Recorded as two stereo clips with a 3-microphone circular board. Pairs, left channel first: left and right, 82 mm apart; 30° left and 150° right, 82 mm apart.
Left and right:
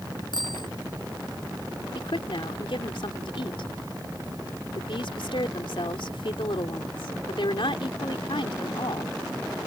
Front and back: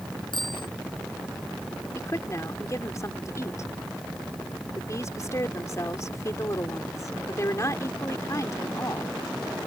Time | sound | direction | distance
0.3 | a bicycle bell | 60° left | ?
1.9 | a woman speaking | 80° left | ?